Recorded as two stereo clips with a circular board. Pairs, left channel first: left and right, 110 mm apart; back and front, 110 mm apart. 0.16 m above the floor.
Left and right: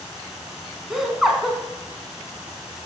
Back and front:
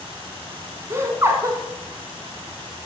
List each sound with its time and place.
0.9 s laughter: 10° right, 1.1 m